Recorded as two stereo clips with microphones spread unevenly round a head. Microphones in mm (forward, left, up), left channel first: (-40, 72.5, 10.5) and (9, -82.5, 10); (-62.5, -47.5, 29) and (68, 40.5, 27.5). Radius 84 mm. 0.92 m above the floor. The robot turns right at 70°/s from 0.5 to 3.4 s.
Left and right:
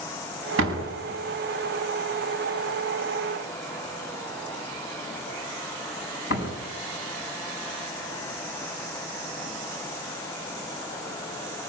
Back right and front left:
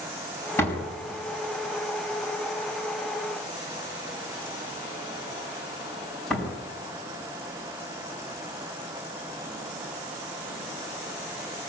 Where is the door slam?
70° right, 6 m; by 6.6 s 125° left, 6 m.